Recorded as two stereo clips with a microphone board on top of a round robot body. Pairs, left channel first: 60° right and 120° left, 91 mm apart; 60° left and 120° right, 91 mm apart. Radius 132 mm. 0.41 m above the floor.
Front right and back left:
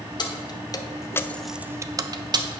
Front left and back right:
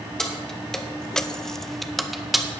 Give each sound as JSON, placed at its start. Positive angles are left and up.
{"t": 0.2, "sound": "keys jangling", "azimuth_deg": -25, "distance_m": 1.3}